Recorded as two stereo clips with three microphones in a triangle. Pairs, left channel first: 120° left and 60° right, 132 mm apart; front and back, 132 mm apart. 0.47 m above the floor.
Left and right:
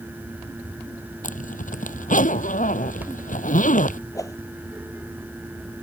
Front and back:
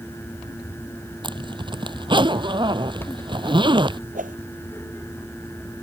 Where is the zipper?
125° left.